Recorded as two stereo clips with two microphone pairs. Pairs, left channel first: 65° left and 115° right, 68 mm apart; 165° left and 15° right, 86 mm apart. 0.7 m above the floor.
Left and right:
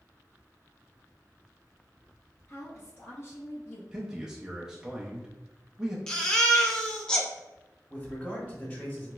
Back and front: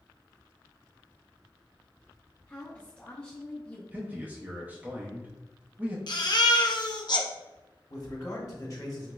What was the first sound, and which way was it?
A woman speaking, 95° left.